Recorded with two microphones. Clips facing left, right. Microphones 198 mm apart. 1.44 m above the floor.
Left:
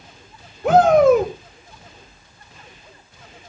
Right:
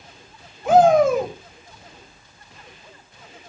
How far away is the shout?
About 6 m.